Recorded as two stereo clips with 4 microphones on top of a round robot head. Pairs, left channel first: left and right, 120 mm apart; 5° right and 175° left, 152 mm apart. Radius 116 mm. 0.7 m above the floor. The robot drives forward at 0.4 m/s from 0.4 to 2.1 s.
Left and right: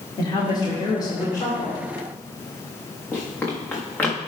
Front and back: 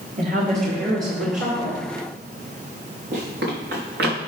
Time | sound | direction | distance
0.2 | a woman speaking | 140° left | 2 m
3.1 | running footsteps | 160° left | 4.5 m